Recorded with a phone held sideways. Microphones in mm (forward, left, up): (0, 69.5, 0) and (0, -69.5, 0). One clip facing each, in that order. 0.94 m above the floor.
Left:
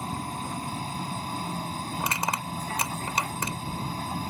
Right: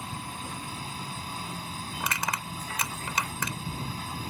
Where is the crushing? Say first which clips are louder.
Left 2 dB; 30° left (ahead or behind).